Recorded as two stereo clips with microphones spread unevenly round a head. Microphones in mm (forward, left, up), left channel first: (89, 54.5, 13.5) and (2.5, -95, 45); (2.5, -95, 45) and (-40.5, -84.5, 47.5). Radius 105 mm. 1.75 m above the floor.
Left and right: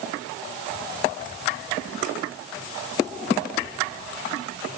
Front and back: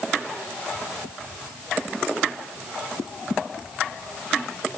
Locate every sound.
Only background noise.